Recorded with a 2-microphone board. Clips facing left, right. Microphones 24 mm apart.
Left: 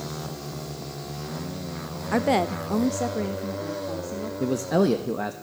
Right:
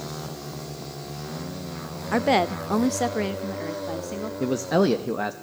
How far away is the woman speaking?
About 0.6 m.